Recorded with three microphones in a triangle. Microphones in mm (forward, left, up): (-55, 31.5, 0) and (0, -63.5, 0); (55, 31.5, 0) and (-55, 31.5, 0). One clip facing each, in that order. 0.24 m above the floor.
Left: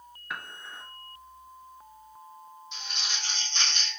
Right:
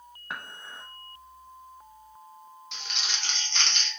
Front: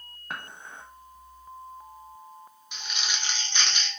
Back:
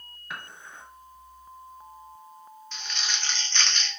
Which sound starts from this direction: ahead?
Dishes clattering, at 0.3 s.